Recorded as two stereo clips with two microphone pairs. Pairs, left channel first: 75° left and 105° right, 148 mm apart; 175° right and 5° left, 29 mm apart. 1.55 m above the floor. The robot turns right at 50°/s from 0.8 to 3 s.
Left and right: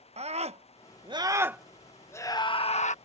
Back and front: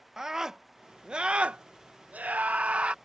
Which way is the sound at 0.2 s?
60° right.